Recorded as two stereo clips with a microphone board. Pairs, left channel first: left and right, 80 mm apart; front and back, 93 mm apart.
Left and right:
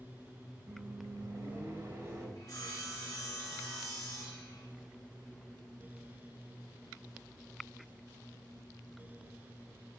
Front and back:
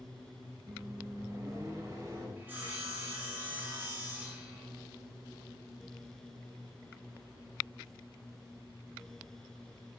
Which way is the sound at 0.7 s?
130° right.